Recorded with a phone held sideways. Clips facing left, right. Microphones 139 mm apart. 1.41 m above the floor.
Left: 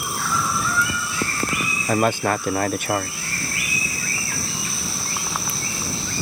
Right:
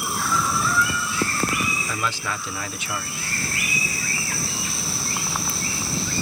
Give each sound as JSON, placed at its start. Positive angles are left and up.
{"t": 1.9, "sound": "a man speaking", "side_deg": 55}